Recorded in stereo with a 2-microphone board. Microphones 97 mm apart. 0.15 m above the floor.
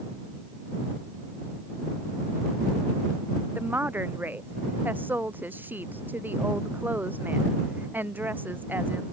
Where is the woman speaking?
20° right (ahead or behind).